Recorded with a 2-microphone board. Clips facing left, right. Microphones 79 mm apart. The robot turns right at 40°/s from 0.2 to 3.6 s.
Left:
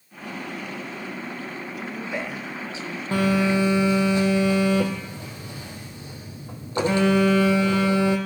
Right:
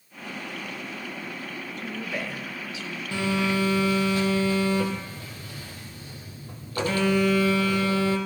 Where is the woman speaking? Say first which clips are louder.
Left 2 dB; 10° left, 1.8 m; by 3.0 s 60° left, 1.8 m.